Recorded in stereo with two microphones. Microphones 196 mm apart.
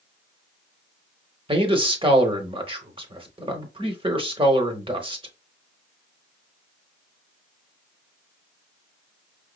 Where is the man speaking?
25° right (ahead or behind), 0.9 m.